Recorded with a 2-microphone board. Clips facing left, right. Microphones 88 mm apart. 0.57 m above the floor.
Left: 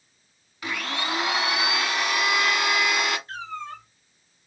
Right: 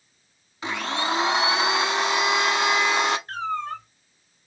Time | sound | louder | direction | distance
0.6 | a blender | right 3 dB | 25° right (ahead or behind) | 0.7 m
3.3 | a cat meowing | right 6 dB | 55° right (ahead or behind) | 1.2 m